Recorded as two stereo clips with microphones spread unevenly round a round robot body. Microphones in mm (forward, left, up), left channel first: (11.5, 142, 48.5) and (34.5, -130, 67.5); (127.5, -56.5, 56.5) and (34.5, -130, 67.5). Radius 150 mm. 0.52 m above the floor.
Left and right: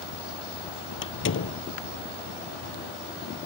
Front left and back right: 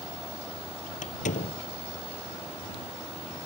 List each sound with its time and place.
1.0 s a door slam: 50° left